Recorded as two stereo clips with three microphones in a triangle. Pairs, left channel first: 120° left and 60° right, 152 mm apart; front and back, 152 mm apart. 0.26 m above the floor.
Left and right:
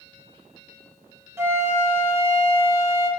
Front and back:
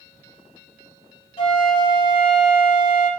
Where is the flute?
Straight ahead, 1.4 m.